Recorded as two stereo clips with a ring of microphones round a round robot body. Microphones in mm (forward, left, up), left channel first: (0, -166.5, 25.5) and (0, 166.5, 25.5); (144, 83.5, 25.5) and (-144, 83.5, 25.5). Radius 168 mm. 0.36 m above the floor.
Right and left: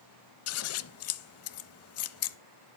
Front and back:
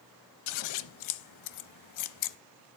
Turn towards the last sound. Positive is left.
turn(degrees=-40)